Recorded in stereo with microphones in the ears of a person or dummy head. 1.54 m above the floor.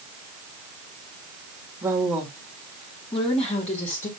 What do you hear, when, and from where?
1.8 s a woman speaking: 10° right (ahead or behind), 2 m; by 4.1 s 40° left (ahead or behind), 3.5 m